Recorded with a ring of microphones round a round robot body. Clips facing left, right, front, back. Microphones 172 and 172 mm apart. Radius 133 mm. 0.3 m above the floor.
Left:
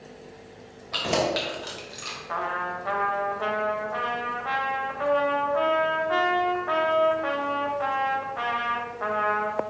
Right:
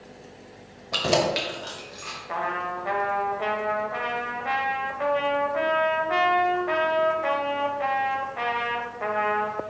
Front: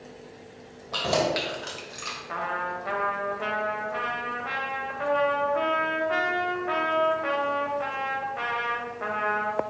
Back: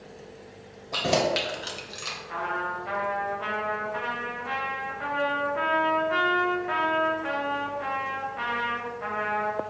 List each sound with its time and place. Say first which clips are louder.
0.9 s keys jangling: right 2 dB, back 1 dB; 105° right, 1.3 m; by 2.2 s 130° left, 1.5 m
2.3 s a trumpet: right 1 dB, even; 20° right, 1.5 m